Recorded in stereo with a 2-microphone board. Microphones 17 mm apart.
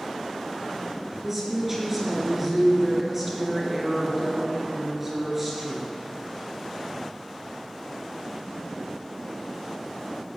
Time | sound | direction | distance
1.2 | a woman speaking | 10° right (ahead or behind) | 4 m